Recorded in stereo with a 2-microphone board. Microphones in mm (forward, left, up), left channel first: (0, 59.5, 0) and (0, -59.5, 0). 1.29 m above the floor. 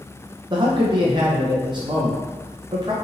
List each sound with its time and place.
0.5 s a man speaking: 40° right (ahead or behind), 0.8 m